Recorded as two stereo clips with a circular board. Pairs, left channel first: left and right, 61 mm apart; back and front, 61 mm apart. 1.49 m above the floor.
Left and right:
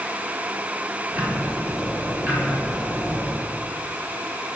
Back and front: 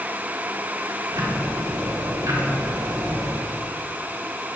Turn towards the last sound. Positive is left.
turn(degrees=-20)